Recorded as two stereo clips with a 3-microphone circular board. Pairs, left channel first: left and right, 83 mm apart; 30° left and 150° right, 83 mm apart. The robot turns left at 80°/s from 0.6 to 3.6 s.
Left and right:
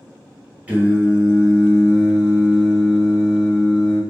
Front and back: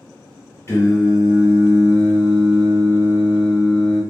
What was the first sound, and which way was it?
Singing, 20° right.